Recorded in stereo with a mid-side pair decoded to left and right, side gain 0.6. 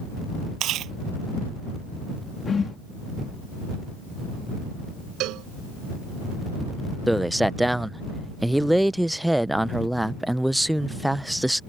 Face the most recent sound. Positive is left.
turn(degrees=-5)